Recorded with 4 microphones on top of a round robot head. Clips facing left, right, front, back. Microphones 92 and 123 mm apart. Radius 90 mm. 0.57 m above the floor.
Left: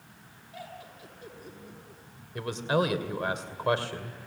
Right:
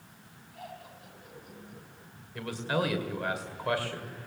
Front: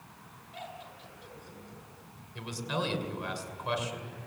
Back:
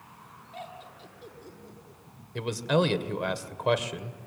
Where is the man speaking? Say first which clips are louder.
Left 4 dB, back 9 dB; 160° left, 2 m.